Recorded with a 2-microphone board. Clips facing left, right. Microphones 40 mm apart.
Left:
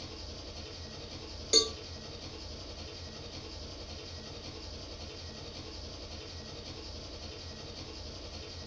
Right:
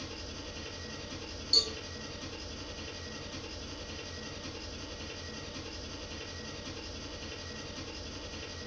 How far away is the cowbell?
About 0.9 m.